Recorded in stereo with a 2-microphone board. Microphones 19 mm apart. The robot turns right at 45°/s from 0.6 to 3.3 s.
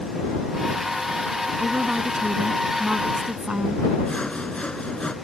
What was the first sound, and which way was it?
A woman speaking, 135° right.